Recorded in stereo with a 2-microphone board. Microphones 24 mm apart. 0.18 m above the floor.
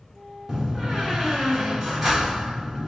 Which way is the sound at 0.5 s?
Centre (ahead or behind).